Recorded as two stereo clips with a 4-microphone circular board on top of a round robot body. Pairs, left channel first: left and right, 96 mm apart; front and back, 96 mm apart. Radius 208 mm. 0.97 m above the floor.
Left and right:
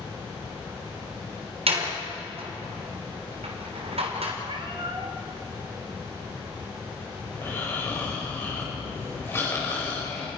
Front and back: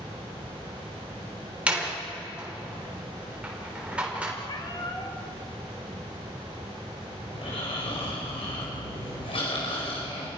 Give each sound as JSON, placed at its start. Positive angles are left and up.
{"t": 1.7, "sound": "a door slam", "azimuth_deg": -105, "distance_m": 3.5}
{"t": 4.5, "sound": "a cat meowing", "azimuth_deg": -50, "distance_m": 1.2}
{"t": 7.3, "sound": "snoring", "azimuth_deg": 25, "distance_m": 5.5}